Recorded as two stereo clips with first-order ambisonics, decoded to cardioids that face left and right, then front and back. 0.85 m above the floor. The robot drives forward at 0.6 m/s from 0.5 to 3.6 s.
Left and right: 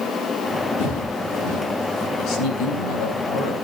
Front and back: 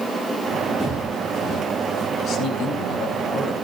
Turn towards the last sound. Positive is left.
turn(degrees=70)